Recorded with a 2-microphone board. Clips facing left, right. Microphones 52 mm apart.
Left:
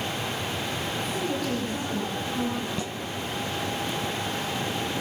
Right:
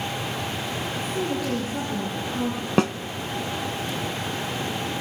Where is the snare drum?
70° right (ahead or behind), 0.9 m.